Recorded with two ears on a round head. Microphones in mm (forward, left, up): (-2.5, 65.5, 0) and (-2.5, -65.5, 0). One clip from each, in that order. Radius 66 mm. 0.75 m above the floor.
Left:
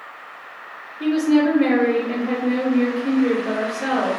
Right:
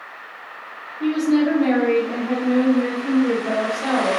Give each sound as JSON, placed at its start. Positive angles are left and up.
{"t": 1.0, "sound": "a woman speaking", "side_deg": 65, "distance_m": 1.7}